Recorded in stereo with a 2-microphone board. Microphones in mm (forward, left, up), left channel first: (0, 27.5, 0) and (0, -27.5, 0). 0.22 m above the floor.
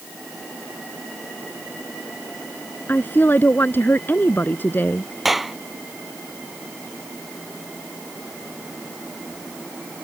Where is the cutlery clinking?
No cutlery clinking in this recording.